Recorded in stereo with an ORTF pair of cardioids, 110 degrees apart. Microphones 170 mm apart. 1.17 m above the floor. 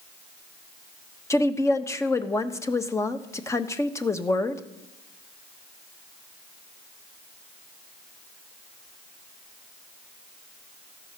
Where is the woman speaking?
15° left, 1.2 m.